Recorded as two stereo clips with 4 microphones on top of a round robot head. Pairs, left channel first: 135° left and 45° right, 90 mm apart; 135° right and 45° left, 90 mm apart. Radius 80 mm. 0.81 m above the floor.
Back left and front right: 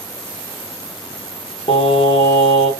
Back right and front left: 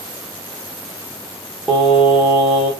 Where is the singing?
130° left, 1.2 m.